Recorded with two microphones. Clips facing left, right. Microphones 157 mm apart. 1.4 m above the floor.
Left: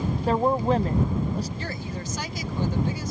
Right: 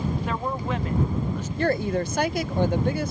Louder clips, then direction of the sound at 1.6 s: Right 10 dB; 60° right (ahead or behind).